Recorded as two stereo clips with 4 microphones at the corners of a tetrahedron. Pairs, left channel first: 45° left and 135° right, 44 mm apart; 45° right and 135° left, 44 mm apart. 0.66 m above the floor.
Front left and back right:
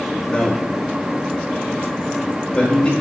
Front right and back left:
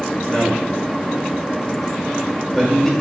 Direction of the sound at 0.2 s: 25° left.